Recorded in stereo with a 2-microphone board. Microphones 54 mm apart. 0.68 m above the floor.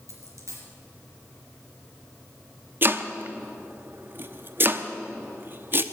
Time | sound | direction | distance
0.1 | a dropped coin | 75° right (ahead or behind) | 4 m
2.8 | chopping | 40° right (ahead or behind) | 0.8 m